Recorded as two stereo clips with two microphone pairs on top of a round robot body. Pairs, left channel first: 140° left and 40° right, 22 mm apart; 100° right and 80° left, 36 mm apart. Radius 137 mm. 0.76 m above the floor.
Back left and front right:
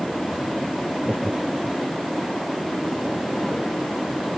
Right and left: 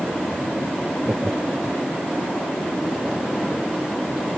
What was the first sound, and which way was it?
Laughter, 25° left.